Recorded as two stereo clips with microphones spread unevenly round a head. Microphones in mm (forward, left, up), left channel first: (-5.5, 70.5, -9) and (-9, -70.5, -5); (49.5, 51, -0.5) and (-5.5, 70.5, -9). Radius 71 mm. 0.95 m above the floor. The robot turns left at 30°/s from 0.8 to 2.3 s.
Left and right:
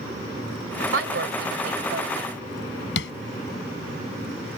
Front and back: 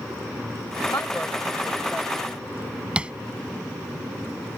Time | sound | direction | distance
0.9 | a woman speaking | 85° right | ?
3.0 | tapping | 90° left | ?